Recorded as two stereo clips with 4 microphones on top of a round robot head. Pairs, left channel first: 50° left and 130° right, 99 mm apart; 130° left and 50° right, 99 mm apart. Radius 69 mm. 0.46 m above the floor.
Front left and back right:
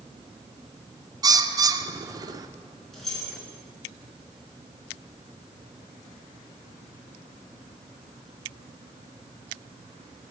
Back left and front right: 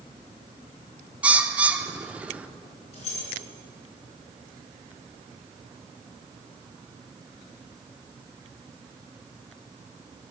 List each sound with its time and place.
1.2 s a bird: 120° right, 0.6 m
2.9 s keys jangling: 140° left, 4 m